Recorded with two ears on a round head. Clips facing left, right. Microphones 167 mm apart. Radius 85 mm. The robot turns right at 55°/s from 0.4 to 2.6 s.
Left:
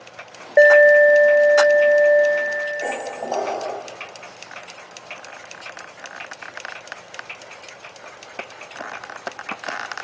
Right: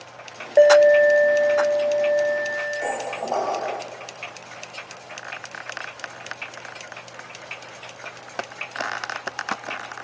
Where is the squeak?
10° left (ahead or behind), 0.9 m.